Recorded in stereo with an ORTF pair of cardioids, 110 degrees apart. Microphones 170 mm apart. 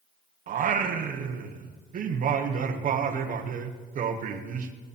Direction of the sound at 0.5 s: 50° right.